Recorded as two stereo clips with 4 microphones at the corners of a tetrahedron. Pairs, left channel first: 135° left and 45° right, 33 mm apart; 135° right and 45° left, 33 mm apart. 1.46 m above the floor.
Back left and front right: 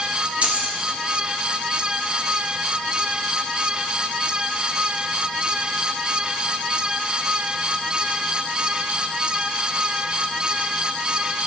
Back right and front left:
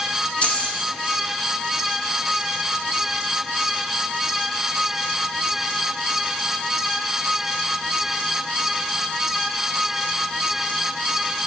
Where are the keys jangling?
85° right, 2 m.